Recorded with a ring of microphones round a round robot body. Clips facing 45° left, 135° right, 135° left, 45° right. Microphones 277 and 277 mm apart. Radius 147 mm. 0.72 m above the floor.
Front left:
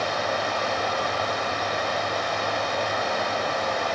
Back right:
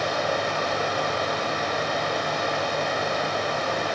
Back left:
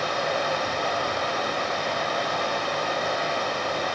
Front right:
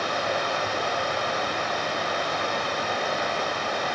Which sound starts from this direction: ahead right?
Running water, at 0.0 s.